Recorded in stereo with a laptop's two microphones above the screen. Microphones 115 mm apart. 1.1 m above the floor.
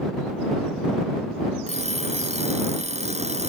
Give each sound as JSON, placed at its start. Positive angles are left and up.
{"t": 1.7, "sound": "an alarm clock", "side_deg": -75}